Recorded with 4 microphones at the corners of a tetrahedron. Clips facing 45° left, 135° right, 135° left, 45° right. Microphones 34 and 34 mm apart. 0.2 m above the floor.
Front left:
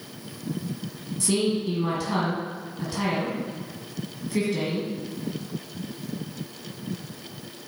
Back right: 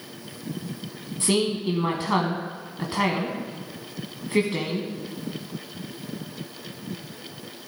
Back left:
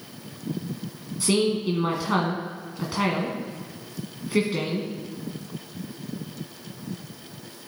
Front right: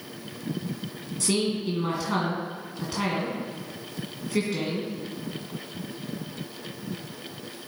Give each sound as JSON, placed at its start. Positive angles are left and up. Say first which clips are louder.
{"t": 1.2, "sound": "a woman speaking", "louder": "back right 1 dB, back left 4 dB", "azimuth_deg": -165, "distance_m": 1.9}